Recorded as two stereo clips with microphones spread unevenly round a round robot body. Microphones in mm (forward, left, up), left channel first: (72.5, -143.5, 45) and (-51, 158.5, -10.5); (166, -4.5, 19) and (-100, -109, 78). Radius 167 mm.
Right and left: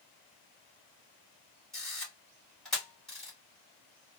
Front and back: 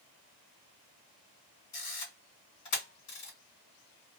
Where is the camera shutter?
25° left, 2.5 m.